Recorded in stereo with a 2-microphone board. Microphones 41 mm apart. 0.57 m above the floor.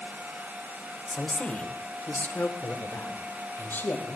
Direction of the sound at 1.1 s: 20° left (ahead or behind).